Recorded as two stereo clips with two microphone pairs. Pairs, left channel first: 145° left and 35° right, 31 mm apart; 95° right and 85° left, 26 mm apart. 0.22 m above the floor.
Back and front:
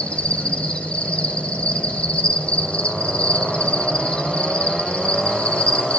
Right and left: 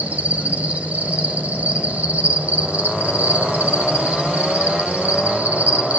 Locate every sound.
0.0 s an insect: 95° left, 9.5 m